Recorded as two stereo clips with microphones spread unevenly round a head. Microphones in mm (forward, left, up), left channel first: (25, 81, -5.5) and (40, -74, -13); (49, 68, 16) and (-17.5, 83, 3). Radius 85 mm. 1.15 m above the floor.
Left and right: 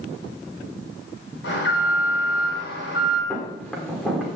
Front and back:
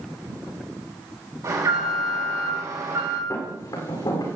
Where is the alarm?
130° left, 6 m.